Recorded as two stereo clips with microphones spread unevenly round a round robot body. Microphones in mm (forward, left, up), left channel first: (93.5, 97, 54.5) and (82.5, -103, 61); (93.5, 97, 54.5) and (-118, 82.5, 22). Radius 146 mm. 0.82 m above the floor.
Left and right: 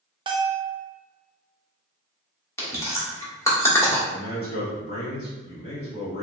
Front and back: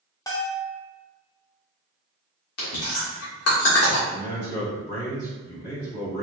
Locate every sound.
0.3 s a bell: 70° right, 0.5 m
2.6 s chewing: 10° left, 1.4 m
4.1 s a man speaking: 55° left, 1.8 m